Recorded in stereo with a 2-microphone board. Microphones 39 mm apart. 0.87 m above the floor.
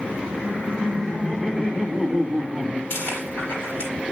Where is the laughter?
50° left (ahead or behind), 4 m; by 2.8 s 25° left (ahead or behind), 5 m.